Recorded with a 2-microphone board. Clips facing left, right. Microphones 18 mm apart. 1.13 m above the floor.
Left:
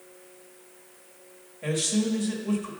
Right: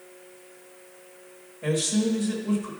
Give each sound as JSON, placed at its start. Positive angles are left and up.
{"t": 1.6, "sound": "a man speaking", "side_deg": 10, "distance_m": 1.6}